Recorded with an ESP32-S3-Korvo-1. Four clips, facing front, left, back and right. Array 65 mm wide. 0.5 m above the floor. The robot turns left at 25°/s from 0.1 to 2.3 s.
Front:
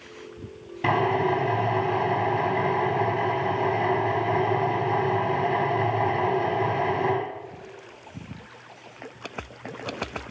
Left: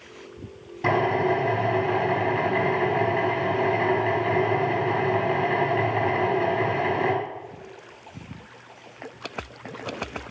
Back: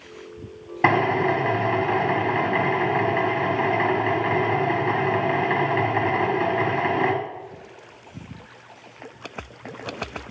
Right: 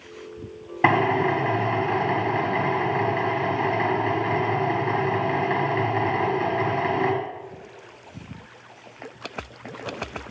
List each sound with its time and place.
0.8 s a drill: 130° right, 4.5 m; by 7.1 s 170° right, 4.5 m